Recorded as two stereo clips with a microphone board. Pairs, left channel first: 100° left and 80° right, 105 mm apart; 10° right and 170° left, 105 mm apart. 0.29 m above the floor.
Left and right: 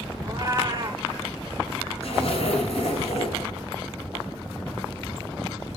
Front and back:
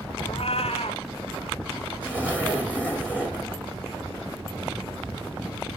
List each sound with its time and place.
0.2 s a cat meowing: 25° right, 0.9 m
2.0 s a zipper: 95° left, 3 m